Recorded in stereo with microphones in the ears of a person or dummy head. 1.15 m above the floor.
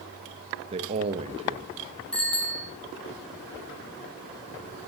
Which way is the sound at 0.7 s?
30° right (ahead or behind).